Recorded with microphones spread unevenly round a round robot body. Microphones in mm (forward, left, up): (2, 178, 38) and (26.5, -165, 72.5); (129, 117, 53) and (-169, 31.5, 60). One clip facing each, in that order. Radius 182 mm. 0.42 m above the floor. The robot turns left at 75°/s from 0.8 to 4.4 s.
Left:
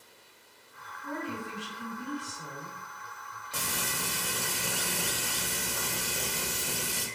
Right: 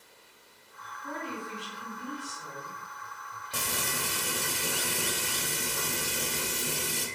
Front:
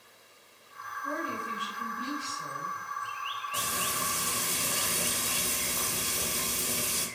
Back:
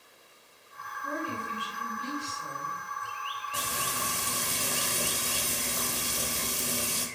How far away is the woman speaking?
About 1.9 m.